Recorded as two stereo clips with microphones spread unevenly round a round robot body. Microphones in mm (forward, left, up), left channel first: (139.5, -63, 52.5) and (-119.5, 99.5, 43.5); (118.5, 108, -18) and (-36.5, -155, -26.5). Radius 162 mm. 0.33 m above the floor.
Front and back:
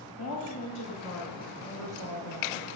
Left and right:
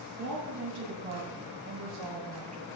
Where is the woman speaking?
75° right, 7.5 m; by 2.7 s 55° right, 5.5 m.